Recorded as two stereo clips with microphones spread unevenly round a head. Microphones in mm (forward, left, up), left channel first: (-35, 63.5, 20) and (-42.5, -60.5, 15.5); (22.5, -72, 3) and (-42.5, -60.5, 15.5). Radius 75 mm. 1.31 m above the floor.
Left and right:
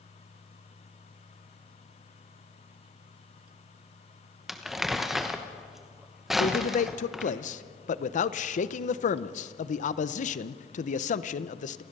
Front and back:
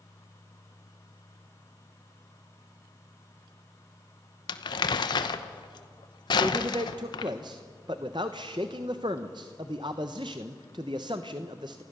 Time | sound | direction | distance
4.5 | crumpling | 5° right | 0.9 m
6.4 | a man speaking | 110° left | 0.8 m